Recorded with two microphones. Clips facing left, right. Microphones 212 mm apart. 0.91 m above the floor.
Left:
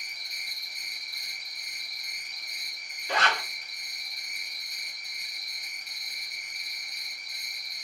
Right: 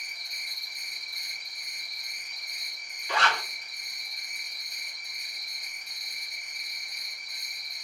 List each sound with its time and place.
0.0 s an insect: 70° left (ahead or behind), 1.4 m
3.1 s a zipper: 40° left (ahead or behind), 1.0 m